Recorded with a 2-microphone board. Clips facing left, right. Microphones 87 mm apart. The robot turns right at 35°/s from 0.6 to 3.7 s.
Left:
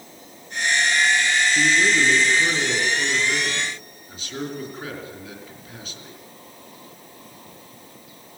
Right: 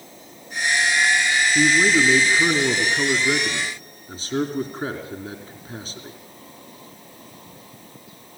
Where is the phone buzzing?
No phone buzzing in this recording.